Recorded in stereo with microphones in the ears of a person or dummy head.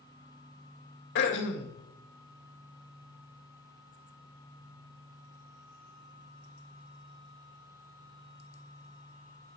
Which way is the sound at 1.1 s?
70° left (ahead or behind).